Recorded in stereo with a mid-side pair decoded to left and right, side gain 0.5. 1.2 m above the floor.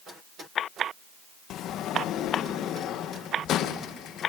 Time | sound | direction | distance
1.5 | a sliding door | 70° left | 1.0 m